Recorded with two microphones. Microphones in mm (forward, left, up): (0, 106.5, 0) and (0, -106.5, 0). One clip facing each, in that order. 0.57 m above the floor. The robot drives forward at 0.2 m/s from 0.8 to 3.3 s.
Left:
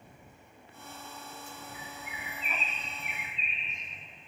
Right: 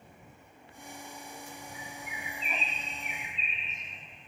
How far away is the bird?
About 2.5 m.